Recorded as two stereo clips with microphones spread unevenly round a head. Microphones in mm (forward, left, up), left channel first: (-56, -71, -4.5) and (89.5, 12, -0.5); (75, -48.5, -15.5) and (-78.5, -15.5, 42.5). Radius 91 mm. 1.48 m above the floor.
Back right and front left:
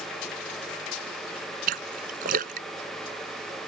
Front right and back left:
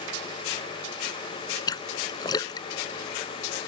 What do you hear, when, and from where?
1.7 s a splash: 65° left